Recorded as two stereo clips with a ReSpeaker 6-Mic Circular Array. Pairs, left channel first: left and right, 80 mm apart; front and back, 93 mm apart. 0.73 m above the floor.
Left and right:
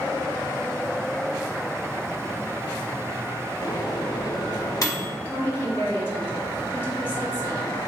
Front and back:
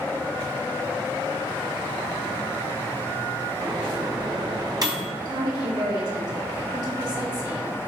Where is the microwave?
135° left, 0.9 m.